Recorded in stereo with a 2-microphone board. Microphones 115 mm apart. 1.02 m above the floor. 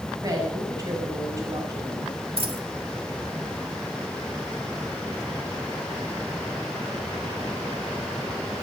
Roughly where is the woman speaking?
Right.